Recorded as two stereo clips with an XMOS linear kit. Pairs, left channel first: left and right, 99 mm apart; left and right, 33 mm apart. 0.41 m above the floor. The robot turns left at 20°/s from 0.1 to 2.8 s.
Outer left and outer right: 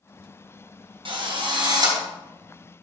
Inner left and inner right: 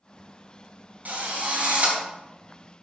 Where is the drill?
60° right (ahead or behind), 3 m; by 2.0 s 40° right (ahead or behind), 3 m.